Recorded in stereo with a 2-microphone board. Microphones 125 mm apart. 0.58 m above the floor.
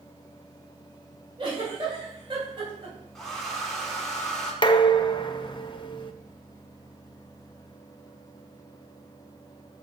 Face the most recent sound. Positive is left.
turn(degrees=35)  # may be behind; listen again after turning